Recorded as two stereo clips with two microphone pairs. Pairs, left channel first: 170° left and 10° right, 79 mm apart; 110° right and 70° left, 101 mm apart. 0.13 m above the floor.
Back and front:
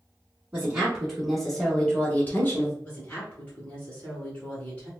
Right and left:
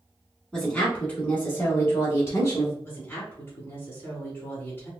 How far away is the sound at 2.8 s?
About 1.6 m.